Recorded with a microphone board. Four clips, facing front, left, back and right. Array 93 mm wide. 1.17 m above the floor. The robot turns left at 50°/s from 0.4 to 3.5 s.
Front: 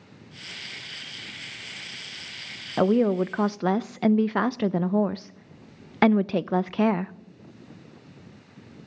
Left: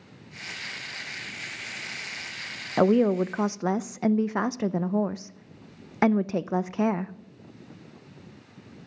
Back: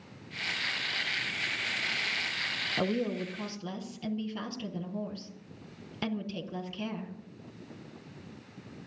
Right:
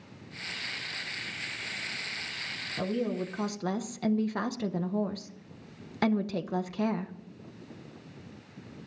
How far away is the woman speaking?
About 0.6 m.